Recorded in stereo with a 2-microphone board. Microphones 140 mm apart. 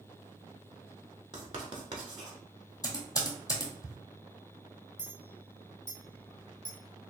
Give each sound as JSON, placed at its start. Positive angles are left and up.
{"t": 1.3, "sound": "writing", "side_deg": -40, "distance_m": 0.9}
{"t": 2.8, "sound": "typing on a keyboard", "side_deg": 25, "distance_m": 1.2}
{"t": 5.0, "sound": "a clink", "side_deg": 5, "distance_m": 1.2}